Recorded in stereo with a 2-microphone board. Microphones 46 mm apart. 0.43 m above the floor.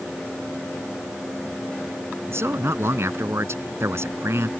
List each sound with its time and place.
2.3 s a man speaking: 75° right (ahead or behind)